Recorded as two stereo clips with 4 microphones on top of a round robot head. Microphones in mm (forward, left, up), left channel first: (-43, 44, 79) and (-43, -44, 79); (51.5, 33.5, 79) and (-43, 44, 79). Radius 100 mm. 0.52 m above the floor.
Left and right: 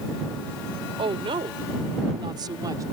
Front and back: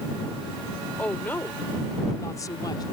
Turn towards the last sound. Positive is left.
turn(degrees=-45)